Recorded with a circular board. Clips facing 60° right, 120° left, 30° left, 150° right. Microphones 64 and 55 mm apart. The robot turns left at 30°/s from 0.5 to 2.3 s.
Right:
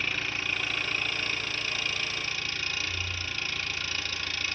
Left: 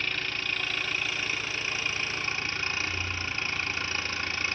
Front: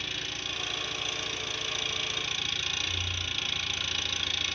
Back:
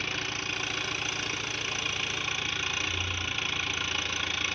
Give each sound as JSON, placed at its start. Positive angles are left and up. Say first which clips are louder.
{"t": 0.0, "sound": "an engine running", "louder": "even, back 4 dB", "azimuth_deg": -140, "distance_m": 1.2}